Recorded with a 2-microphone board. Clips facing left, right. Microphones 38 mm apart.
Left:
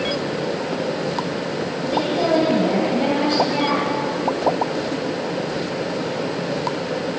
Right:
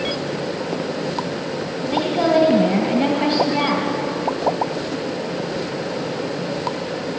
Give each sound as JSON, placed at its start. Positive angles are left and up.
{"t": 1.9, "sound": "a woman speaking", "side_deg": -15, "distance_m": 2.5}